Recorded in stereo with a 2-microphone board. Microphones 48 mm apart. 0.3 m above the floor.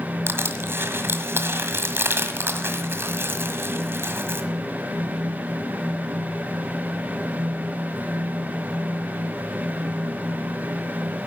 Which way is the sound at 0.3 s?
55° right (ahead or behind).